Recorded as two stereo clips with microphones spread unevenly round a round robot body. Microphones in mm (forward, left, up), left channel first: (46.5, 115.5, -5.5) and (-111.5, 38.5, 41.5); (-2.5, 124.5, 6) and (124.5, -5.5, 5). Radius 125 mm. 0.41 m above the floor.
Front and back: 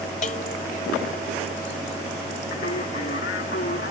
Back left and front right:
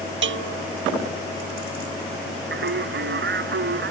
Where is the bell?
35° right.